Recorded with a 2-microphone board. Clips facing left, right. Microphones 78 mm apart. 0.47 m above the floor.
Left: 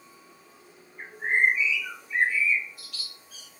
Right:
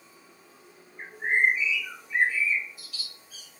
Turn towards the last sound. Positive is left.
turn(degrees=60)  # may be behind; listen again after turning